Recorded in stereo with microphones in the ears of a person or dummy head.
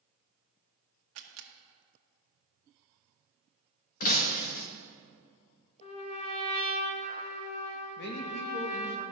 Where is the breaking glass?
45° left (ahead or behind), 1.0 m.